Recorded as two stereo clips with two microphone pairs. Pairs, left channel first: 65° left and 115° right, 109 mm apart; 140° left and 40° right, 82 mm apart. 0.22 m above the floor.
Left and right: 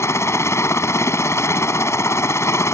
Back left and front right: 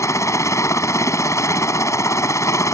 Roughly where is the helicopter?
Behind left.